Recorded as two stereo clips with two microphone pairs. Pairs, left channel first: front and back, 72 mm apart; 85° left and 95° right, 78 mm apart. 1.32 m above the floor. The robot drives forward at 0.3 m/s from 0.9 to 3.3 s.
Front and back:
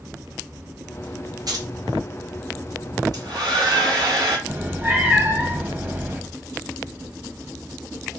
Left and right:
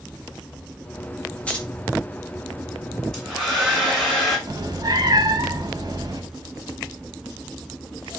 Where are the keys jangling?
155° left, 1.2 m.